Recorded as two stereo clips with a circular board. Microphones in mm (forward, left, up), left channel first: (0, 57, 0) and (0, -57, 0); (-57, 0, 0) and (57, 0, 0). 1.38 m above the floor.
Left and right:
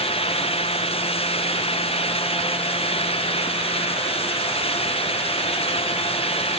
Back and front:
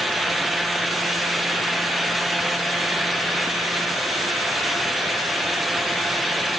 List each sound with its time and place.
Only background noise.